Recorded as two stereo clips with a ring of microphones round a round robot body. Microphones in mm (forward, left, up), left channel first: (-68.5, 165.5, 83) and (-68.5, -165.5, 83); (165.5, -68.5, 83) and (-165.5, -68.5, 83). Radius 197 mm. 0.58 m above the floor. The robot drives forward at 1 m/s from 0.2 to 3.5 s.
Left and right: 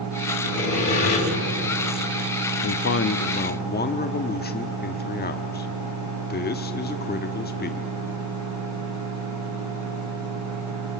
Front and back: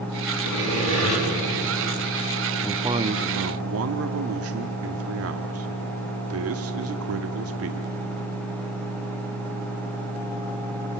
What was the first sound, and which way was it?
Sawing, 45° left.